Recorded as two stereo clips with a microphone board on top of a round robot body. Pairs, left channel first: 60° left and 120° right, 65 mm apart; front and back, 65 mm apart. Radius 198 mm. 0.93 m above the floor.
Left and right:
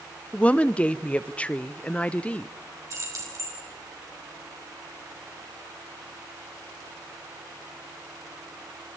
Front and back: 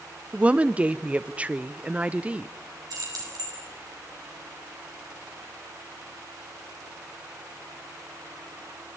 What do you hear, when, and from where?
0.3 s a woman speaking: 120° left, 0.8 m
2.9 s keys jangling: 160° right, 5.5 m